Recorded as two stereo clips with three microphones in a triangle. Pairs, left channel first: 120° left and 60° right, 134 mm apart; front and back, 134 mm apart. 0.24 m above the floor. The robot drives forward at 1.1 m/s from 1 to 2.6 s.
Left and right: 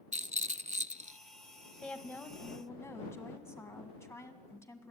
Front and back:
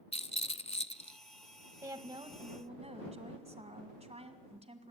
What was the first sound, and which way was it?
A rattle, 40° right.